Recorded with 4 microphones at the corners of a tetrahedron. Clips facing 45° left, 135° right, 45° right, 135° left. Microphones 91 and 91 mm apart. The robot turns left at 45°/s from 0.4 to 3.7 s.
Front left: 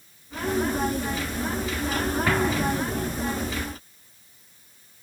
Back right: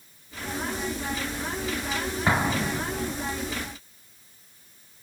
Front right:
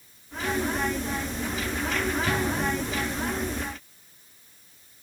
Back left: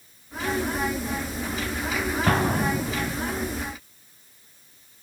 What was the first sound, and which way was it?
An explosion, 160° left.